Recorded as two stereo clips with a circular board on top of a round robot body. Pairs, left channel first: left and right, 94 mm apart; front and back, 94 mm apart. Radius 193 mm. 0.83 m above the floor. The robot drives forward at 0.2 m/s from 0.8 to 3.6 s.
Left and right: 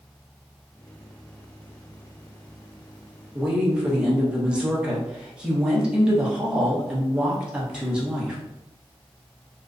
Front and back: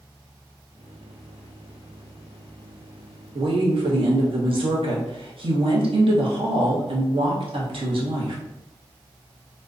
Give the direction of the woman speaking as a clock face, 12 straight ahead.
6 o'clock.